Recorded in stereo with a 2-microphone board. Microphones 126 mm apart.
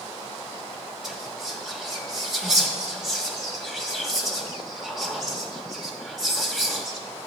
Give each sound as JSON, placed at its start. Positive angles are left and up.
{"t": 1.0, "sound": "whispering", "side_deg": -5, "distance_m": 0.9}